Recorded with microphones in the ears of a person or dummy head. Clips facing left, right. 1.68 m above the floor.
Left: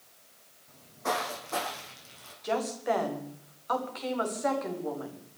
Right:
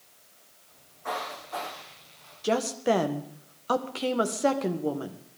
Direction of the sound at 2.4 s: 45° right (ahead or behind).